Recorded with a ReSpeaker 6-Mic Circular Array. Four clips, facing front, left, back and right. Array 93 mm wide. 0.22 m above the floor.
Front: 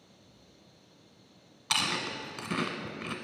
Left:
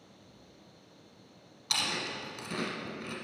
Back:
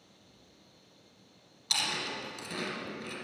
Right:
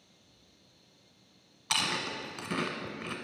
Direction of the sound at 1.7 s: 40° right.